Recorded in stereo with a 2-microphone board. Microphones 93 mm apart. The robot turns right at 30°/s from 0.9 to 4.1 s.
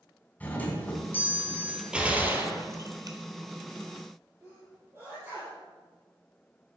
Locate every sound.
0.4 s a doorbell: 15° left (ahead or behind), 1.6 m; by 1.8 s 20° left (ahead or behind), 1.6 m
1.9 s a gunshot: 170° right, 1.5 m; by 3.2 s 130° right, 1.5 m
4.4 s a sneeze: 30° right (ahead or behind), 4 m